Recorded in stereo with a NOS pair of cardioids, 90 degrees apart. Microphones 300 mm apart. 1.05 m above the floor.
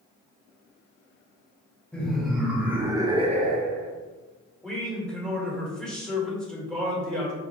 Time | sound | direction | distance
1.9 | laughter | 5° left | 1.3 m
4.6 | a man speaking | 5° left | 1.2 m